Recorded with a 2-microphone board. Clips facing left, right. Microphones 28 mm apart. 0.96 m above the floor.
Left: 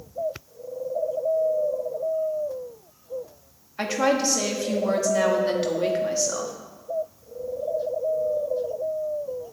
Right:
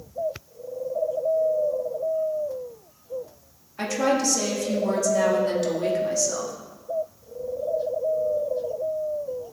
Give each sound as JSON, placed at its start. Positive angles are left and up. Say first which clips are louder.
{"t": 3.8, "sound": "a woman speaking", "louder": "left 1 dB", "side_deg": 20, "distance_m": 1.6}